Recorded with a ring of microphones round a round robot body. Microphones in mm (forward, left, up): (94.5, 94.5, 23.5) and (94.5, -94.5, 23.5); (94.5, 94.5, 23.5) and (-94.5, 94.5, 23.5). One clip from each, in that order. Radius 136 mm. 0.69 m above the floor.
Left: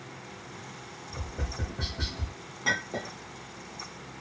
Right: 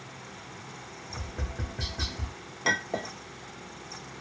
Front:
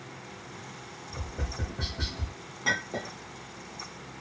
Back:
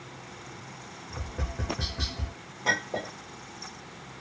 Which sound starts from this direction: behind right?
Tapping, at 1.1 s.